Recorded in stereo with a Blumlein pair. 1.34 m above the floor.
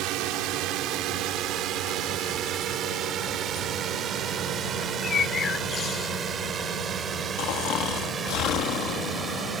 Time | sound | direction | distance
0.0 | a drone | 40° right | ?
4.8 | a bird | 25° left | ?
7.4 | snoring | 35° left | ?